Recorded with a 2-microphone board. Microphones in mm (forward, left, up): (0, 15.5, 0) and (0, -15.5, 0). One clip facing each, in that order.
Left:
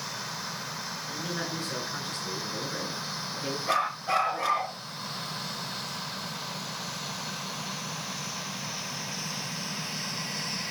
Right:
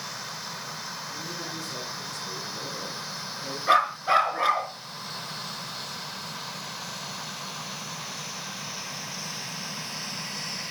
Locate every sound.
1.1 s a man speaking: 45° left (ahead or behind), 9.5 m; by 3.6 s 40° left (ahead or behind), 8.5 m
3.7 s a dog barking: 35° right (ahead or behind), 5 m